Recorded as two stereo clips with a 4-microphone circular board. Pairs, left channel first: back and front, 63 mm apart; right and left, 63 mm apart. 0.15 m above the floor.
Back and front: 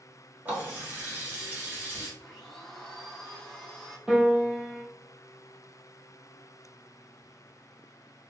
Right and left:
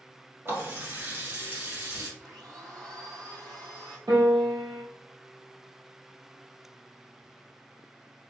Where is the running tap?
55° left, 1.4 m.